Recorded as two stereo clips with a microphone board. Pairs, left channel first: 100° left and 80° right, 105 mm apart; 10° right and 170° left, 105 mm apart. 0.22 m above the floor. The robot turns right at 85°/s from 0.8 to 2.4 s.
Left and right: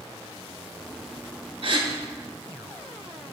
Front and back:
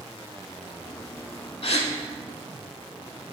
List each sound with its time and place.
1.6 s a gasp: 50° right, 0.6 m; by 1.9 s 25° right, 0.6 m